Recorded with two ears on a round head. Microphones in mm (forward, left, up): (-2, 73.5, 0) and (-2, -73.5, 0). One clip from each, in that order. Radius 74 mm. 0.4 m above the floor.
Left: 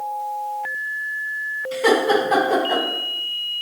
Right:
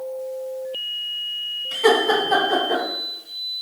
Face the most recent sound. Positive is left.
turn(degrees=10)  # may be behind; listen again after turning